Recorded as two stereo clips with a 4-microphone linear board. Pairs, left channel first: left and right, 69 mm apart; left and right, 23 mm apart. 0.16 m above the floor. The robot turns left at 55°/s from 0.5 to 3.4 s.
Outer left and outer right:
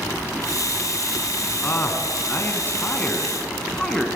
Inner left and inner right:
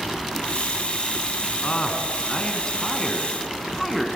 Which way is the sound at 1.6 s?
120° left.